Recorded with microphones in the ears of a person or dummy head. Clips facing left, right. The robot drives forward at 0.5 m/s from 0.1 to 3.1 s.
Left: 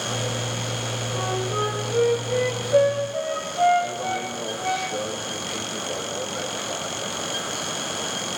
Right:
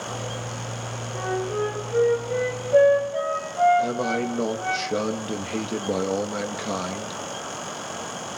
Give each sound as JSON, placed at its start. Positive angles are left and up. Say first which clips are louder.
{"t": 1.1, "sound": "a flute", "louder": "right 2 dB", "side_deg": -15, "distance_m": 4.0}
{"t": 3.8, "sound": "a man speaking", "louder": "right 3 dB", "side_deg": -60, "distance_m": 2.0}